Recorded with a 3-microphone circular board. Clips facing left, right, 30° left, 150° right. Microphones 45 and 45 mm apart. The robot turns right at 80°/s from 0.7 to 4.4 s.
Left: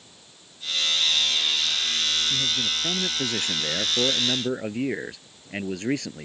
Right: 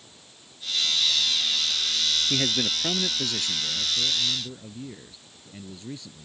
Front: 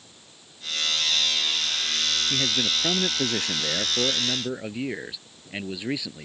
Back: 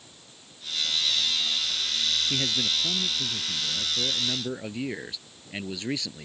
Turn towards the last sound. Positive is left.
turn(degrees=110)